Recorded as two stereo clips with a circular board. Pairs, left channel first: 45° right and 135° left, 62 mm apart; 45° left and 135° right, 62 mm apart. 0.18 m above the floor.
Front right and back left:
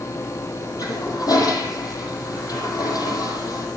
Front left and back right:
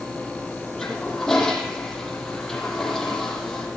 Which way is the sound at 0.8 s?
40° right.